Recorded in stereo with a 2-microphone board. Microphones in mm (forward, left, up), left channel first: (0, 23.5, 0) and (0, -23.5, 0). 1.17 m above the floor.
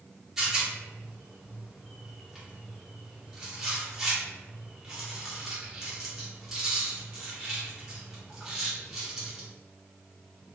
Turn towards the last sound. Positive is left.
turn(degrees=-10)  # may be behind; listen again after turning